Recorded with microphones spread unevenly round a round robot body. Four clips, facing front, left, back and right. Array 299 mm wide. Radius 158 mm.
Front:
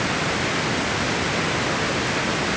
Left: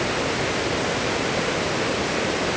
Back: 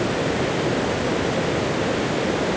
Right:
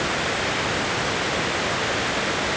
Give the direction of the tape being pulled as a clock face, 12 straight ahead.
I don't hear tape being pulled.